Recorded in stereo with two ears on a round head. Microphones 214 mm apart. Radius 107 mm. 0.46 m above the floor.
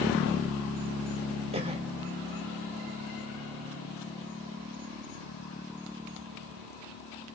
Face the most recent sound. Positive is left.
turn(degrees=-25)  # may be behind; listen again after turning